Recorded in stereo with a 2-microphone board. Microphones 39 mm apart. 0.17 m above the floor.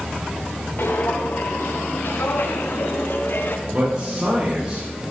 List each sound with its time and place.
0.8 s footsteps: 80° left, 4.5 m
3.7 s a man speaking: 30° right (ahead or behind), 7 m